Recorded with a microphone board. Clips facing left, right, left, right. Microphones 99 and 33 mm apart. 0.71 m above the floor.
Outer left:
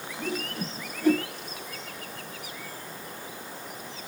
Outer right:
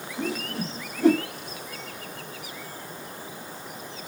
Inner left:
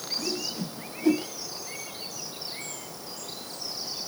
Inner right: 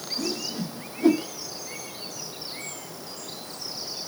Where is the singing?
I don't hear singing.